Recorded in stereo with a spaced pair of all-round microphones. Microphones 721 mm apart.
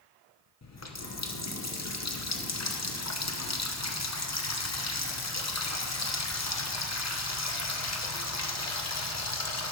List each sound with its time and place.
0.6 s a running tap: 25° left (ahead or behind), 0.6 m